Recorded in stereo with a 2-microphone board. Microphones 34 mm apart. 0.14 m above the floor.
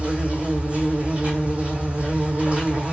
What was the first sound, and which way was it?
An insect, 40° right (ahead or behind).